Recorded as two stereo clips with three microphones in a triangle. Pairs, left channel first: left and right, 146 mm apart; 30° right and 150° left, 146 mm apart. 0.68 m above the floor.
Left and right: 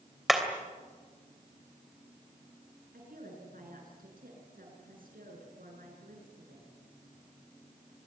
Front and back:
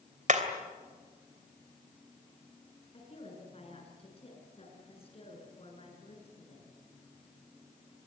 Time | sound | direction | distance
0.3 | hammering | straight behind | 3 m
2.9 | a woman speaking | 80° right | 7 m